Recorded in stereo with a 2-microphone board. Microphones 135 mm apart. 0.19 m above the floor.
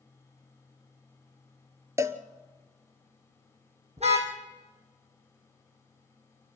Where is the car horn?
55° right (ahead or behind), 3.5 m.